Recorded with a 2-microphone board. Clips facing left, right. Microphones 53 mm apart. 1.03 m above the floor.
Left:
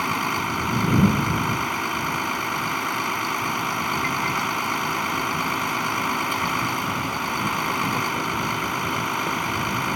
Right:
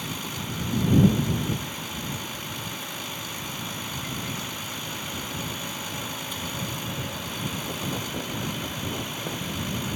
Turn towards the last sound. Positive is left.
turn(degrees=60)  # may be behind; listen again after turning